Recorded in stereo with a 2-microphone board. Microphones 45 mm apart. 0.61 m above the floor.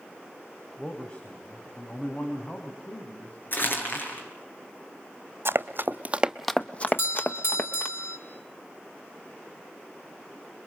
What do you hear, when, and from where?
0.8 s a man speaking: 20° left (ahead or behind), 3 m; by 4.2 s 40° left (ahead or behind), 5 m
3.5 s crumpling: 45° left (ahead or behind), 6 m
5.5 s running footsteps: 60° right (ahead or behind), 1.3 m; by 7.9 s 60° left (ahead or behind), 2.0 m
6.9 s a doorbell: 60° left (ahead or behind), 3 m